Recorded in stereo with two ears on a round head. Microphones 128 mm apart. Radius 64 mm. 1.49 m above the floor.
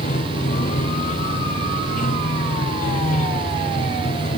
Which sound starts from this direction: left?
Running water, at 0.0 s.